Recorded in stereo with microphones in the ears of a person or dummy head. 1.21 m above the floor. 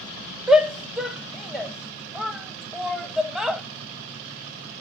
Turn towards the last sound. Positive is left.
turn(degrees=0)  # may be behind; listen again after turning